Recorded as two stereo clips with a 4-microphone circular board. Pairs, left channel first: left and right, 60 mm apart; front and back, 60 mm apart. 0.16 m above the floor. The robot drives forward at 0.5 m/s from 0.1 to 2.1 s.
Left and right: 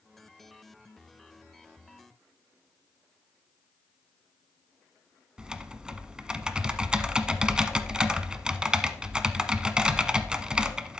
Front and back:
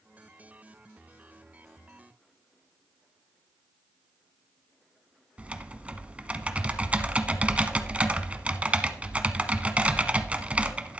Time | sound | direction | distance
5.4 | typing on a keyboard | 150° right | 0.9 m